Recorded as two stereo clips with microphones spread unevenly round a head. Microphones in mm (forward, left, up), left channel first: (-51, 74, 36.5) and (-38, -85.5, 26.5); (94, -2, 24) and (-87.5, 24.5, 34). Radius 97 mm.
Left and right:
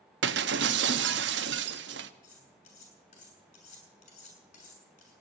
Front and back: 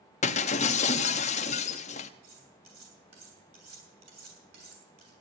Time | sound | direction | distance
0.2 | breaking glass | 60° right | 0.7 m
2.2 | cutlery clinking | 135° left | 6.5 m